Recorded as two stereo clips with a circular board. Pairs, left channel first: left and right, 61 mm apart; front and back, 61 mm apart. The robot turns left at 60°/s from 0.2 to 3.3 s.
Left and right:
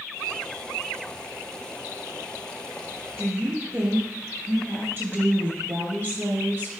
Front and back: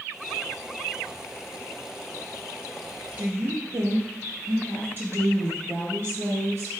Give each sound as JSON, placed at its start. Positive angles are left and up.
{"t": 3.2, "sound": "a woman speaking", "azimuth_deg": -130, "distance_m": 2.5}